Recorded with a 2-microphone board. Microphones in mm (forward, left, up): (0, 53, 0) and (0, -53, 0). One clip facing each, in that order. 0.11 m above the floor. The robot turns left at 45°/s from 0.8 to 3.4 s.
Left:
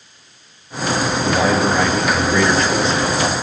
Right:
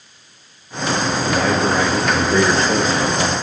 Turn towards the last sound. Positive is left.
turn(degrees=-80)